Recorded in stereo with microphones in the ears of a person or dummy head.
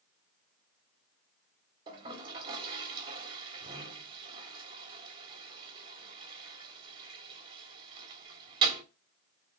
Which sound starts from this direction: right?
A toilet flushing, at 1.9 s.